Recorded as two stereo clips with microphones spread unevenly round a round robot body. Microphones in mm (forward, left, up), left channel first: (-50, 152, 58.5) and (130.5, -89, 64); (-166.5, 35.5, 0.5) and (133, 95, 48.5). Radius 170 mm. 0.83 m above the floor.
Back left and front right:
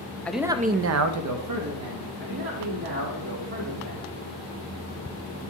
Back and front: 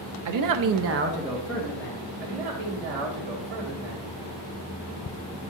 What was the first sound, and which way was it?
A man speaking, 40° left.